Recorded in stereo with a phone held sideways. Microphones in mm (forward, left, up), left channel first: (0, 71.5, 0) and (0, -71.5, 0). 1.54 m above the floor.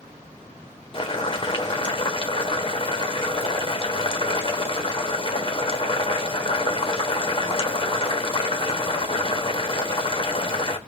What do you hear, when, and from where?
0.9 s boiling: 35° left (ahead or behind), 1.2 m